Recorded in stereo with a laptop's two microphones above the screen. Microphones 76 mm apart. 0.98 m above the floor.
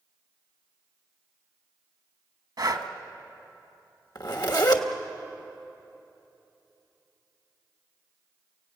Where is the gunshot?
No gunshot in this recording.